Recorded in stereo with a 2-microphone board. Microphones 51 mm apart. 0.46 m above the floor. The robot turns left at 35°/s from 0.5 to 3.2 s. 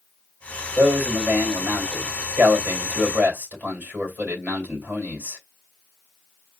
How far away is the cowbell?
No cowbell in this recording.